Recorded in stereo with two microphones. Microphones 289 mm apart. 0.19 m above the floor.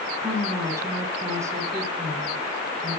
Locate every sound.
0.2 s a woman speaking: 10° right (ahead or behind), 1.8 m